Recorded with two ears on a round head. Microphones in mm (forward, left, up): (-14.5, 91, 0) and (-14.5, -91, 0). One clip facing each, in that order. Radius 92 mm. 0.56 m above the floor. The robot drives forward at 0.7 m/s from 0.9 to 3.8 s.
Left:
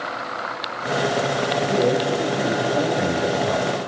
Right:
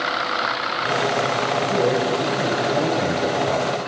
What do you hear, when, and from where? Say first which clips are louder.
1.6 s a man speaking: even; centre (ahead or behind), 3.5 m